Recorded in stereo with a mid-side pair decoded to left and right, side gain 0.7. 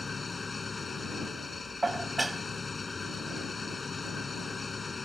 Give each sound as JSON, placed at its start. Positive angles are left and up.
{"t": 0.0, "sound": "an engine running", "azimuth_deg": 20}
{"t": 1.8, "sound": "dishes clattering", "azimuth_deg": -10}